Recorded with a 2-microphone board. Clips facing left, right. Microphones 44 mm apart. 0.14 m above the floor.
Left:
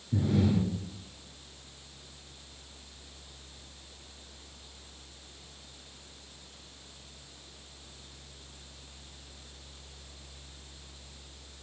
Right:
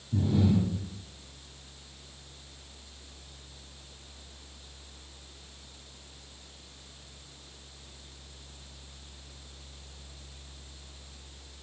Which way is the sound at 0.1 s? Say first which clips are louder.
Right 1 dB; 60° left (ahead or behind).